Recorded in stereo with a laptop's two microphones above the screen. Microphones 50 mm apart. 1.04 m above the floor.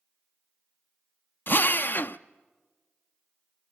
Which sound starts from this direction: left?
A drill, at 1.5 s.